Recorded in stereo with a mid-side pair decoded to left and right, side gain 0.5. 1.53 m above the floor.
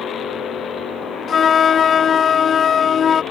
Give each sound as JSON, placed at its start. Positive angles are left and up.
{"t": 1.3, "sound": "a flute", "azimuth_deg": 45}